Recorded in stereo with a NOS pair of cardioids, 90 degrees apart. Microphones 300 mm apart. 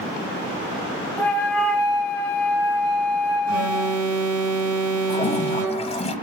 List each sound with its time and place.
1.2 s a flute: 5° left, 0.7 m
3.5 s an alarm: 65° right, 0.8 m
5.1 s a toilet flushing: 20° left, 0.8 m